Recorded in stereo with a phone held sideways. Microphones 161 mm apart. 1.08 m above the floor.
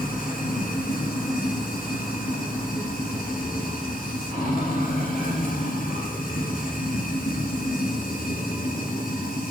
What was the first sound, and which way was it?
Running water, 65° left (ahead or behind).